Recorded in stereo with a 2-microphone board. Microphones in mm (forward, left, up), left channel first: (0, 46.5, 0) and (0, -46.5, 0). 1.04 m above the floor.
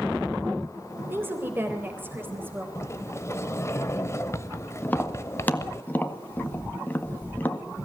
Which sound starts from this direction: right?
A woman speaking, at 1.1 s.